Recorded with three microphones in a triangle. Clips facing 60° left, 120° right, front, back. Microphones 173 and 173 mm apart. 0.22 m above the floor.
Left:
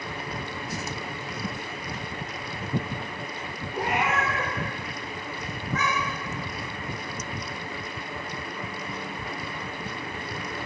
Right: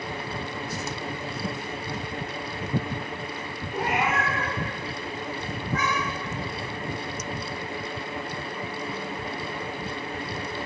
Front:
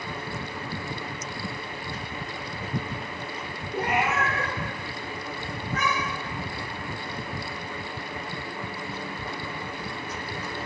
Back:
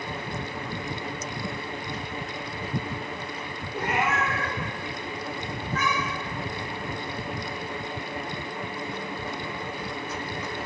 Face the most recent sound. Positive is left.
turn(degrees=-5)